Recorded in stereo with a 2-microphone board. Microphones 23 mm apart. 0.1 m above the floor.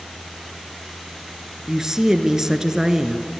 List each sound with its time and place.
1.7 s a woman speaking: 20° right (ahead or behind), 1.1 m